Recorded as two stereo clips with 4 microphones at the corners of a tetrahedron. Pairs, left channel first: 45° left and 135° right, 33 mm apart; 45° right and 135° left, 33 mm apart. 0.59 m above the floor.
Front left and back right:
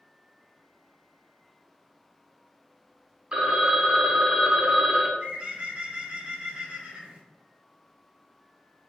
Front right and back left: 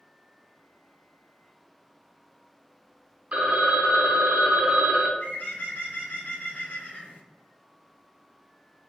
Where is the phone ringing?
175° left, 0.5 m.